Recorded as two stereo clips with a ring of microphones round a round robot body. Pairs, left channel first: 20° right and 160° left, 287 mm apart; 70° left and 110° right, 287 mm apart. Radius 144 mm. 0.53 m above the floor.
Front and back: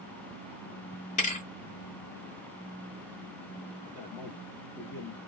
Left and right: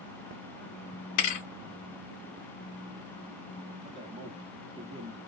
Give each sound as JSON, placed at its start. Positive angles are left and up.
{"t": 1.2, "sound": "a thud", "azimuth_deg": 45, "distance_m": 0.8}
{"t": 3.8, "sound": "a man speaking", "azimuth_deg": -60, "distance_m": 0.7}